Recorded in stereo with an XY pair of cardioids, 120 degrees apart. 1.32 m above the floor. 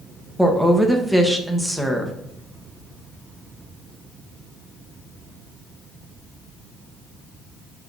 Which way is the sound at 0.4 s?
Straight ahead.